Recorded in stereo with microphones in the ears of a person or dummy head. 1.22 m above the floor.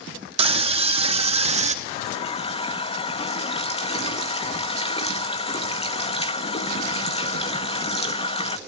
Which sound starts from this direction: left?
A running tap, at 1.9 s.